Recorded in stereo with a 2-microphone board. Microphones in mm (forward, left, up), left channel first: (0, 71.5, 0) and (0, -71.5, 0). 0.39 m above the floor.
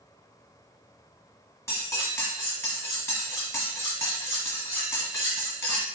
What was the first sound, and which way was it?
Cutlery clinking, 20° left (ahead or behind).